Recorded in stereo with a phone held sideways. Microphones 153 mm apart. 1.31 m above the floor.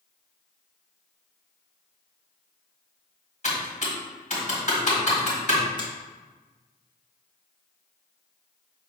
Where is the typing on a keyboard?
50° left (ahead or behind), 1.6 m.